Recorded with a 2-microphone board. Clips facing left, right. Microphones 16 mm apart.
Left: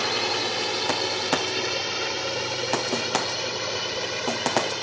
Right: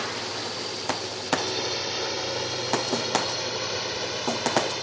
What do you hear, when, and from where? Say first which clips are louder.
0.0 s a drone: left 6 dB; 70° left (ahead or behind); by 4.8 s 65° left (ahead or behind)